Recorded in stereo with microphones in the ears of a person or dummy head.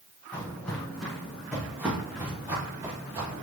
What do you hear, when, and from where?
0.3 s footsteps: 10° left (ahead or behind), 3 m; by 3.4 s 25° right (ahead or behind), 4.5 m